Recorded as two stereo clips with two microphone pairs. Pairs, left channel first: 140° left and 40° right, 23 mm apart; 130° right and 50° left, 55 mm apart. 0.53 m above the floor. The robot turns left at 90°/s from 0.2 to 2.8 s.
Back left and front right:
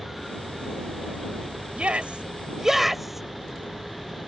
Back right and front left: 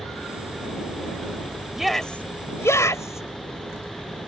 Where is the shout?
25° right; by 3.3 s 120° right.